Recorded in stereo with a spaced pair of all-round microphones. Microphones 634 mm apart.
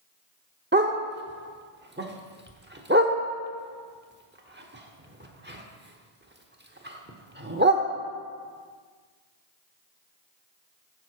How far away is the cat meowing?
No cat meowing in this recording.